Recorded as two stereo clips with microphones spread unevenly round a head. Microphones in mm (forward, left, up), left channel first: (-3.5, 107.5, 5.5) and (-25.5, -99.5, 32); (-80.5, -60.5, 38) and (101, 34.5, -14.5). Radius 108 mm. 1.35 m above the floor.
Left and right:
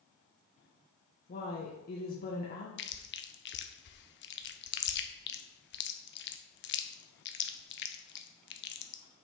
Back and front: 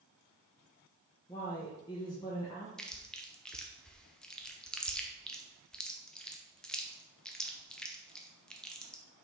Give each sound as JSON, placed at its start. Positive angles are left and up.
{"t": 1.3, "sound": "a woman speaking", "azimuth_deg": 130, "distance_m": 1.3}
{"t": 2.8, "sound": "chewing", "azimuth_deg": 115, "distance_m": 0.8}